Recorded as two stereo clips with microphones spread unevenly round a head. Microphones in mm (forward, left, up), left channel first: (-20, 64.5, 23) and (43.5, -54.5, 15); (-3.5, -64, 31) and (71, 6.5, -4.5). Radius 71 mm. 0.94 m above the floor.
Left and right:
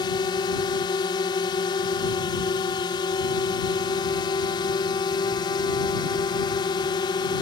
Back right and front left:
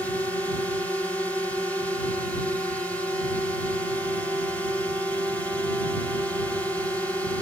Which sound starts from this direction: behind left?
A drone, at 0.0 s.